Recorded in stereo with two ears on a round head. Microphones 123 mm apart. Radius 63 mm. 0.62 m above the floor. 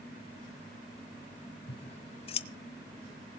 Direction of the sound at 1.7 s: 40° left (ahead or behind).